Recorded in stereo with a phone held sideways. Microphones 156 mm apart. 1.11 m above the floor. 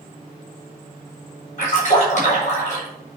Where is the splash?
55° left (ahead or behind), 6.5 m.